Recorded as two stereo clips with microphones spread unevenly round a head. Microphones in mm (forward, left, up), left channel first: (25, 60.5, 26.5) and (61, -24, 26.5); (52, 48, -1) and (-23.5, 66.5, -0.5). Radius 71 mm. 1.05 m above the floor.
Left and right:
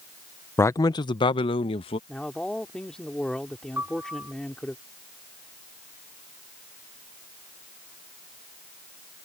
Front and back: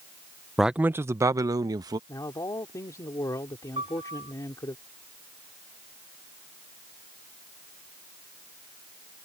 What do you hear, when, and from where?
0.6 s a man speaking: 80° left; by 2.0 s 135° left
2.1 s a man speaking: 30° left
3.8 s a piano: 145° right